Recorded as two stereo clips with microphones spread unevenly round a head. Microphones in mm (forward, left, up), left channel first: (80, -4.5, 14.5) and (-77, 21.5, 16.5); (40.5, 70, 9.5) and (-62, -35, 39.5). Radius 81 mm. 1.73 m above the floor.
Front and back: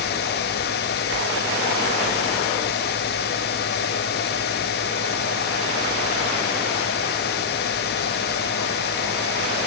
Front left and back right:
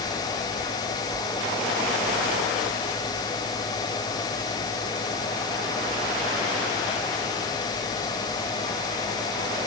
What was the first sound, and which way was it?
Only background noise.